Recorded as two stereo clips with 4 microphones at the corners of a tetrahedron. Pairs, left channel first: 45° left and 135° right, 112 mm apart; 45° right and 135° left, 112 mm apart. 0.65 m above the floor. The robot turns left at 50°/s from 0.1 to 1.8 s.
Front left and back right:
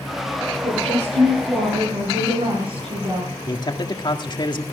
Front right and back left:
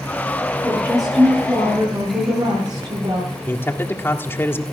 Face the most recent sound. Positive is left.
turn(degrees=20)